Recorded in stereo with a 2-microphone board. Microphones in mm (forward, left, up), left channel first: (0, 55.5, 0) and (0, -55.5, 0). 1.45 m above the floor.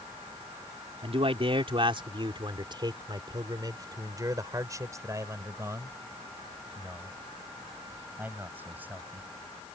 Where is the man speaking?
60° right (ahead or behind); by 9.3 s 15° right (ahead or behind).